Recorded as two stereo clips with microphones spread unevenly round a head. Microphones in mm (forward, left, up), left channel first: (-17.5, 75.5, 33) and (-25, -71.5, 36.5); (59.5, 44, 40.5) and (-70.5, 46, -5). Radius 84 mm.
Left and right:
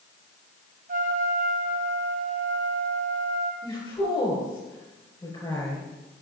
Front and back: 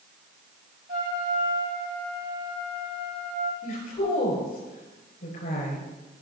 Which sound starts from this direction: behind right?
A trumpet, at 0.9 s.